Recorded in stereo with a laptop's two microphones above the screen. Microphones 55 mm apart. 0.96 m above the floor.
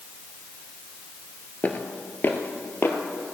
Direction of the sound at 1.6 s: 30° left (ahead or behind).